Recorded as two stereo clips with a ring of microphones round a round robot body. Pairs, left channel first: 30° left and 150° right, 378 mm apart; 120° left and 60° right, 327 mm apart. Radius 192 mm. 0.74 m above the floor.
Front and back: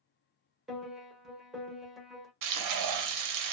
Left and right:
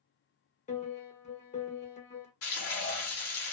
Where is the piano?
120° left, 1.0 m.